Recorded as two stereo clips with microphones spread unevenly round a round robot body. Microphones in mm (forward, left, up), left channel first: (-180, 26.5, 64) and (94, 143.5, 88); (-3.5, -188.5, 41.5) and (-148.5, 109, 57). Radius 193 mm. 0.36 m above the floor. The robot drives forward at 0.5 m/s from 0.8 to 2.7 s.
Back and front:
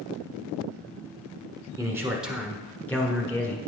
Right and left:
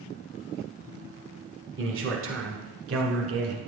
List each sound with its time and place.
1.8 s a man speaking: 100° left, 1.5 m; by 3.6 s 125° left, 1.6 m